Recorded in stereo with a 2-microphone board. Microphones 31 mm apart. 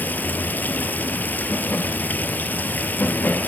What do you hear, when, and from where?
0.0 s running water: 75° left (ahead or behind), 1.2 m